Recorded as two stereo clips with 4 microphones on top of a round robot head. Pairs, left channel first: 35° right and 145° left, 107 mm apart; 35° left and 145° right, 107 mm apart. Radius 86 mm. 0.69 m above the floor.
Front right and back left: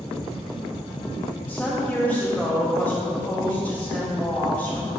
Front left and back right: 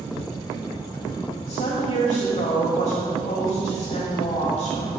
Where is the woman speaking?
40° left, 3.5 m.